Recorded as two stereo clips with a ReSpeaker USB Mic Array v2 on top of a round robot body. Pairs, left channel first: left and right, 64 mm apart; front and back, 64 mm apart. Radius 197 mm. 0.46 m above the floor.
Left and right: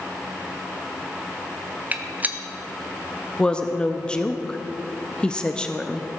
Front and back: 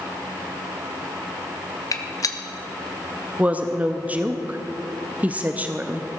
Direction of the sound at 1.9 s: 25° right.